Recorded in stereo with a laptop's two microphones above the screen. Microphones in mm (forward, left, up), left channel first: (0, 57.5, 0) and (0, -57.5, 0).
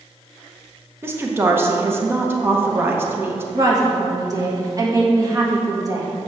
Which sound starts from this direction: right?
A woman speaking, at 3.5 s.